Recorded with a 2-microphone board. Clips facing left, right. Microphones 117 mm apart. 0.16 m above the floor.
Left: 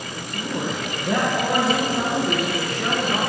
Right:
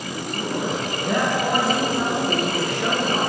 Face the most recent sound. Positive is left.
turn(degrees=10)  # may be behind; listen again after turning